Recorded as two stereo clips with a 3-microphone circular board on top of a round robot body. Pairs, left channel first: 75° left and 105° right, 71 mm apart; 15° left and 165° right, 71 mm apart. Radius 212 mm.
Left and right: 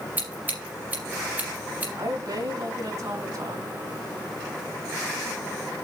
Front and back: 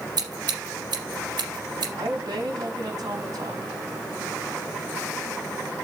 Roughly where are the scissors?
Behind.